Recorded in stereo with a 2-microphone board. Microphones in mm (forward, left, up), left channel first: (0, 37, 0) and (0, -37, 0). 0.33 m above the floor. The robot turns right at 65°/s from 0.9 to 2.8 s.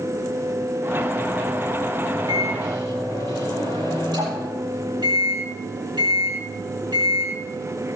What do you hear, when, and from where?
2.3 s a microwave: 110° right, 8.5 m; by 7.9 s 75° right, 8.5 m